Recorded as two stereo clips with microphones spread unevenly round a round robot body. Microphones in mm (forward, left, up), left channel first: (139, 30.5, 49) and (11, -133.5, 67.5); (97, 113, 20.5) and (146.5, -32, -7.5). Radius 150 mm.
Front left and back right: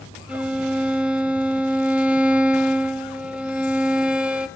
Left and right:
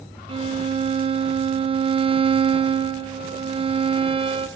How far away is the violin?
About 1.1 m.